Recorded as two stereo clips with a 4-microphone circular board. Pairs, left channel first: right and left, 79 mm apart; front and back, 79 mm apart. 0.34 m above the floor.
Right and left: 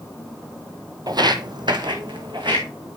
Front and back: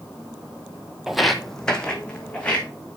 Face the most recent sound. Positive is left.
turn(degrees=75)